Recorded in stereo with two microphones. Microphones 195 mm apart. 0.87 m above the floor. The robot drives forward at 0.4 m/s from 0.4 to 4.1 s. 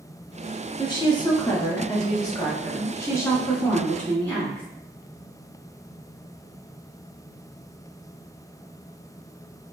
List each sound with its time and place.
0.8 s a woman speaking: 25° left (ahead or behind), 0.9 m; by 4.7 s 10° left (ahead or behind), 1.9 m